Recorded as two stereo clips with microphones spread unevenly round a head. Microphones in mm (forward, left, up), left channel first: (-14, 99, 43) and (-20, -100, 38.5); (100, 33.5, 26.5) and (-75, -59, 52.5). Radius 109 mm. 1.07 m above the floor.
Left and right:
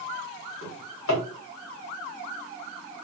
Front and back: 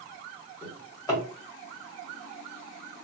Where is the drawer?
105° left, 1.7 m.